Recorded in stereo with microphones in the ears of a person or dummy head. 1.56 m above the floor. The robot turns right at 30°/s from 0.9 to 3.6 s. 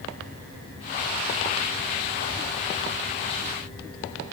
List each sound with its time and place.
Only background noise.